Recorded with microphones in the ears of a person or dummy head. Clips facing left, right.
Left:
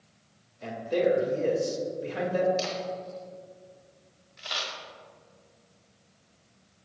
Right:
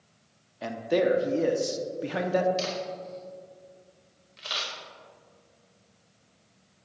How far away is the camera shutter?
About 1.6 m.